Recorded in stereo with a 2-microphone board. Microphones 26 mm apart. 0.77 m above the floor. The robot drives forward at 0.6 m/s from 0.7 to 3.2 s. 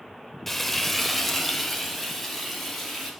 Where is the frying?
10° left (ahead or behind), 0.5 m; by 3.1 s centre (ahead or behind), 1.8 m.